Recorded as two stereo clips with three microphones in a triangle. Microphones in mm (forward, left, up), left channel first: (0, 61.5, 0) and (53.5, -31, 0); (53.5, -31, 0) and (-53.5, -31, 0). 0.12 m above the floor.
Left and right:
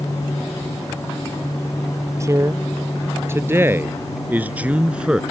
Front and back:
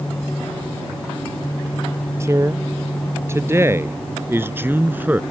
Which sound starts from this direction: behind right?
A man speaking, at 2.2 s.